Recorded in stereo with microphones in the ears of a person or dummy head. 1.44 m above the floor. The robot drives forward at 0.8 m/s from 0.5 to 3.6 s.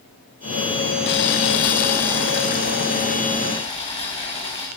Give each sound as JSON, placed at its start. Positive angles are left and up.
{"t": 1.1, "sound": "boiling", "side_deg": 55, "distance_m": 1.0}